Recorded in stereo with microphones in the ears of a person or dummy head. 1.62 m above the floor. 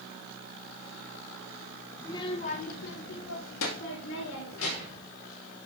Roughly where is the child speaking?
Centre.